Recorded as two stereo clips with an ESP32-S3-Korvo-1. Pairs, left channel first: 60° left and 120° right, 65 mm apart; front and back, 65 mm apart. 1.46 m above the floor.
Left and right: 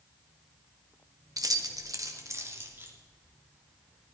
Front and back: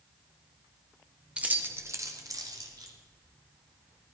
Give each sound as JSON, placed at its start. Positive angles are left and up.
{"t": 1.4, "sound": "keys jangling", "azimuth_deg": -110, "distance_m": 1.4}